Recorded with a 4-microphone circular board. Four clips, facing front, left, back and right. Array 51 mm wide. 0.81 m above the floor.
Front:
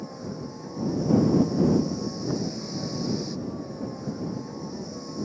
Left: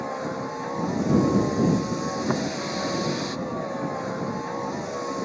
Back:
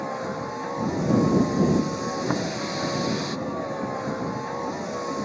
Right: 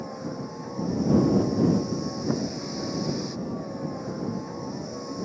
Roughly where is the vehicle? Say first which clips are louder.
Left 5 dB, back 7 dB; behind left.